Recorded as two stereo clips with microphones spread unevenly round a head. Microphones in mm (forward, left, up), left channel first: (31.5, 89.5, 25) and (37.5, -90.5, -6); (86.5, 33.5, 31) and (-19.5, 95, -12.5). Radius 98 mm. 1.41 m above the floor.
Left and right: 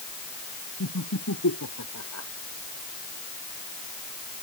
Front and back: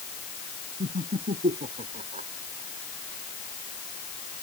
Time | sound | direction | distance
0.8 | laughter | 115° left | ?